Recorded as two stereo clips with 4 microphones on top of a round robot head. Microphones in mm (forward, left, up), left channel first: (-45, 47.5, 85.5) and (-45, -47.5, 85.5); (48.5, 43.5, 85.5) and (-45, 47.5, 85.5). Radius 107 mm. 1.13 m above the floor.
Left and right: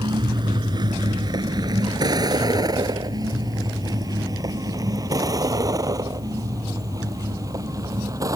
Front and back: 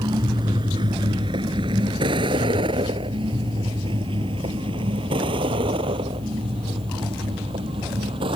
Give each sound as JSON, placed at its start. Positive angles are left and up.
{"t": 0.0, "sound": "a vehicle", "azimuth_deg": -130}